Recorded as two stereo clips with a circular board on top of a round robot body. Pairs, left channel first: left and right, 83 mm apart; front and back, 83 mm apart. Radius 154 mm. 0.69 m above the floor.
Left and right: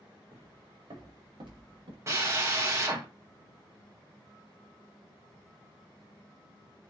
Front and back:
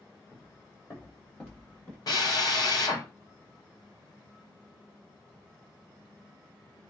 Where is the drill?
40° right, 4 m.